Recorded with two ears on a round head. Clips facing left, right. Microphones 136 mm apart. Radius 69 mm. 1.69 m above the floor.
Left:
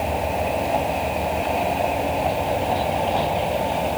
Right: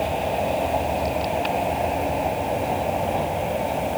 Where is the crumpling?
I don't hear crumpling.